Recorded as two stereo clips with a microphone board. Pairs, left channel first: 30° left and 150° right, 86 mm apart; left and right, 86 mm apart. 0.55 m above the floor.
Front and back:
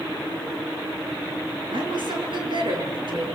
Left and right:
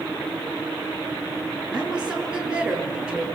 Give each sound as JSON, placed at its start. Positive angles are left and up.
{"t": 1.7, "sound": "a woman speaking", "azimuth_deg": -170, "distance_m": 8.0}